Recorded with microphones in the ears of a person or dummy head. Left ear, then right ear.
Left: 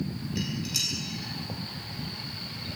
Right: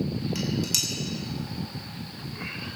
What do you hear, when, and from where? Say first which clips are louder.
0.3 s dishes clattering: right 2 dB; 60° right (ahead or behind), 7 m